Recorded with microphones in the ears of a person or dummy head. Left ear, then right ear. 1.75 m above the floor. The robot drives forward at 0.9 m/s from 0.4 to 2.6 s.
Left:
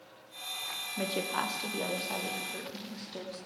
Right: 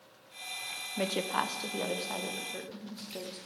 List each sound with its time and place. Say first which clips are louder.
1.0 s a woman speaking: right 2 dB; 25° right (ahead or behind), 0.7 m; by 3.4 s 10° right (ahead or behind), 2 m